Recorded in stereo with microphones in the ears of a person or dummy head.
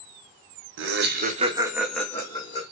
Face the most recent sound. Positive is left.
turn(degrees=35)  # may be behind; listen again after turning